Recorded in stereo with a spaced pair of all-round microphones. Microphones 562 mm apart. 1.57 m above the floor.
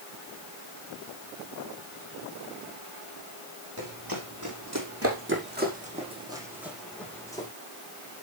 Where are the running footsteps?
40° right (ahead or behind), 6 m; by 7.5 s 5° left (ahead or behind), 6 m.